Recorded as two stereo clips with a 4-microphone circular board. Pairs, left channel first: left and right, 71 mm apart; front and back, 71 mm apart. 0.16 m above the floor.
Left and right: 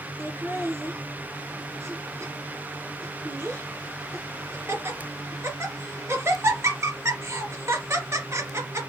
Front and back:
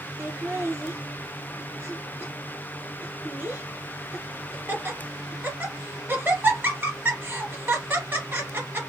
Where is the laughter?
130° right, 1.9 m.